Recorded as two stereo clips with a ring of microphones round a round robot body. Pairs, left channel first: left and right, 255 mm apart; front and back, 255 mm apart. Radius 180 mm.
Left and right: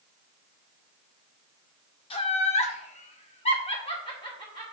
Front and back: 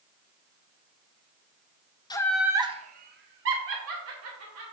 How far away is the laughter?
About 0.6 m.